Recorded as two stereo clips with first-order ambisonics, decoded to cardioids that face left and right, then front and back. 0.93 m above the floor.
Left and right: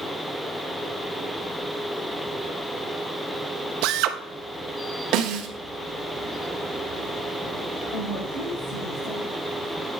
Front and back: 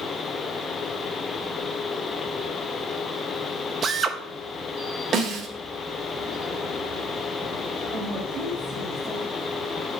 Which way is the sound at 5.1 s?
125° right.